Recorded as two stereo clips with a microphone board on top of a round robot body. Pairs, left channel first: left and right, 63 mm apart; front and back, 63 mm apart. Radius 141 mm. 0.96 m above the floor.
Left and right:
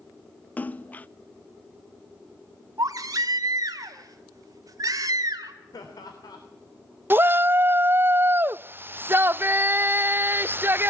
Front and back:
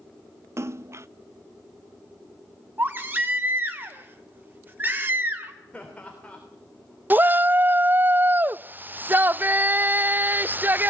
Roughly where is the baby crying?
Behind right.